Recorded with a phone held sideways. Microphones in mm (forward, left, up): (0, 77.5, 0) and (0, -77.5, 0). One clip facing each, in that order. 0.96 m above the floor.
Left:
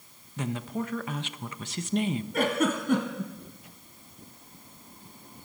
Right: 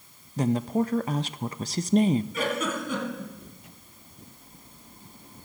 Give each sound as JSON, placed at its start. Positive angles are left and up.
{"t": 0.4, "sound": "a woman speaking", "side_deg": -35, "distance_m": 0.6}
{"t": 2.3, "sound": "a giggle", "side_deg": 60, "distance_m": 2.5}